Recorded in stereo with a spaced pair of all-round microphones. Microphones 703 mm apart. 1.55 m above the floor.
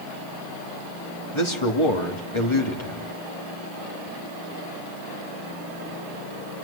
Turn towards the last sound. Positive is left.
turn(degrees=40)  # may be behind; listen again after turning